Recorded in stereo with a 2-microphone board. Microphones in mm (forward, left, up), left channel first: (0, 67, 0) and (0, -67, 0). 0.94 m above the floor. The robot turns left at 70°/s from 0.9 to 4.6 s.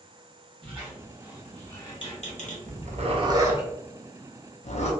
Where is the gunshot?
No gunshot in this recording.